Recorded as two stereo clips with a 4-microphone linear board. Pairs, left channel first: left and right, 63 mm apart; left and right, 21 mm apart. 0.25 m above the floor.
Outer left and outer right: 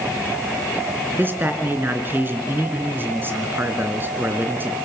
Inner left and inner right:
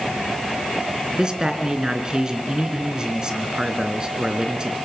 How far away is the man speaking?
About 3 m.